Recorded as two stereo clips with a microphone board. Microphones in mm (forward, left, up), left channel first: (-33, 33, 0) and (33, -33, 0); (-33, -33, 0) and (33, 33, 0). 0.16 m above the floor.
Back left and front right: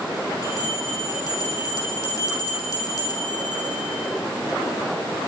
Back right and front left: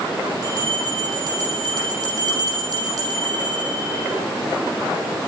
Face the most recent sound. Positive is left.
turn(degrees=85)